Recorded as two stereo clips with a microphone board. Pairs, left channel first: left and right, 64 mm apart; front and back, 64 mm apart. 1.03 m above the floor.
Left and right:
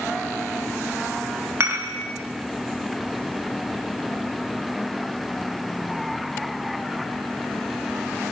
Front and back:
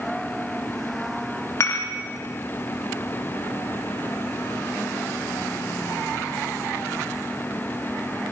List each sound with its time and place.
1.6 s dishes clattering: 45° right, 1.1 m